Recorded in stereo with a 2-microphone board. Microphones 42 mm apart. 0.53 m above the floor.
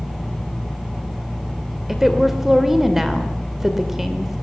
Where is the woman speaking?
5° right (ahead or behind), 2 m.